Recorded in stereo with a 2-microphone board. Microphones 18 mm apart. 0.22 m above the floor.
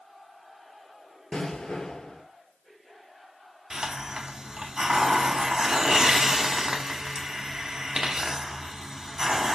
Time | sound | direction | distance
1.3 | an explosion | 80° left | 1.0 m
3.7 | a hiss | 40° right (ahead or behind) | 0.9 m